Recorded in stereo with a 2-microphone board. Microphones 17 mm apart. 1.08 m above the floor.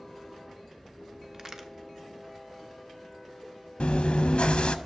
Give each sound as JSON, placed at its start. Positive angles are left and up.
{"t": 1.3, "sound": "a crack", "side_deg": -30, "distance_m": 0.7}
{"t": 3.8, "sound": "chewing", "side_deg": 85, "distance_m": 0.6}